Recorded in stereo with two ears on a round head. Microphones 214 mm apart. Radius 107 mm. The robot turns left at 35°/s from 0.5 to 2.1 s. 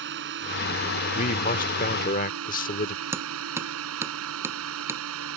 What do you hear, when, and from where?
0.0 s a drone: 55° right; by 5.4 s 110° right
1.1 s a man speaking: 120° left; by 3.0 s 85° left
3.1 s hammering: 10° right (ahead or behind)